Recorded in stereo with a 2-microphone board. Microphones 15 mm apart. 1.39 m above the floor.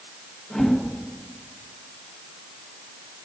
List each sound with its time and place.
0.5 s a whoosh: 40° left (ahead or behind), 1.8 m